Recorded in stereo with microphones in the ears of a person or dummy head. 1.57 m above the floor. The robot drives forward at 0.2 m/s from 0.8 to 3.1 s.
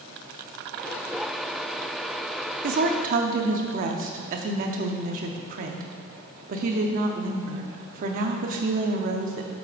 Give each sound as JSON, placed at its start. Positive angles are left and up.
{"t": 2.6, "sound": "a woman speaking", "side_deg": -50, "distance_m": 0.6}